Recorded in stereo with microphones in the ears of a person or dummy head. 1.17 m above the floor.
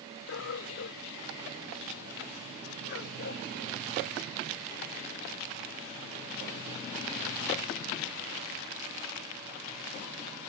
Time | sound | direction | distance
0.3 | a dog barking | 75° left (ahead or behind) | ?